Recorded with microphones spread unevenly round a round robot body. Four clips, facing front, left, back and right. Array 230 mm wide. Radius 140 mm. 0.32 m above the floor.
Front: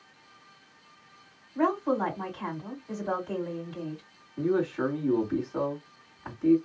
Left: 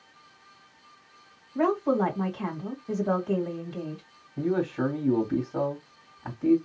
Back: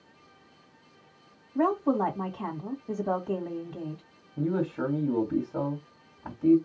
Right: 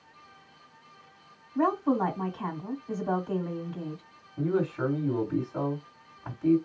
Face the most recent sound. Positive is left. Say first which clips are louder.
# left 1 dB, front 2 dB
turn(degrees=140)